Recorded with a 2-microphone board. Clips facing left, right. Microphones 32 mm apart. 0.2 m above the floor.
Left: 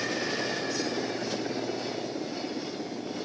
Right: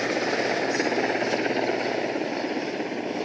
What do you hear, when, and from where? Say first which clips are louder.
0.0 s a helicopter: right 6 dB; 65° right (ahead or behind); by 3.2 s 70° right (ahead or behind)